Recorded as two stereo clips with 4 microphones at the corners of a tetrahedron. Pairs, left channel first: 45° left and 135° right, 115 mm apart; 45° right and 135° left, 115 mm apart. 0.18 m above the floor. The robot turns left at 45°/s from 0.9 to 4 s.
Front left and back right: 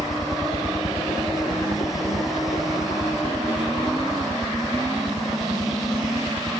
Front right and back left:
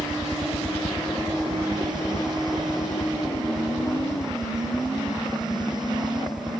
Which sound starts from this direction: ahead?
A helicopter, at 0.0 s.